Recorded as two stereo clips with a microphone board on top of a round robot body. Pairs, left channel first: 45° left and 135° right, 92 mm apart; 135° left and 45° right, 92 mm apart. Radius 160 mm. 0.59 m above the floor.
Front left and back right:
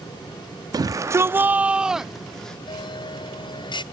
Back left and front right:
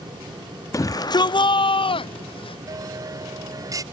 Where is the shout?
175° right; by 2.6 s 130° left.